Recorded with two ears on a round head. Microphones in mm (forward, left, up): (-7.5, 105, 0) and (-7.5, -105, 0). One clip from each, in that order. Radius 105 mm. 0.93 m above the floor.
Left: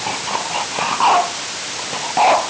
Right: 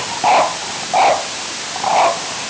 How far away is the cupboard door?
I don't hear a cupboard door.